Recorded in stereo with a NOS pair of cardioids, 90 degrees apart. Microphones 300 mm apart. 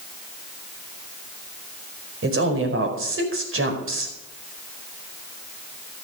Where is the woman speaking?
40° right, 4.5 m.